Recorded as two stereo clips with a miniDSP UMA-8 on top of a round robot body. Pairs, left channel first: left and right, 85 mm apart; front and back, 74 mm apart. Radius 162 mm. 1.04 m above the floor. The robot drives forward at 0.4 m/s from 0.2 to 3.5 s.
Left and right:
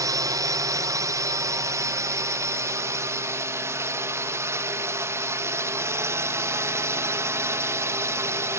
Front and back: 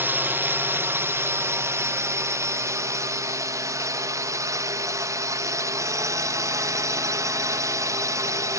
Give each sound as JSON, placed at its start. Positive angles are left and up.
{"t": 0.0, "sound": "a drone", "azimuth_deg": -125}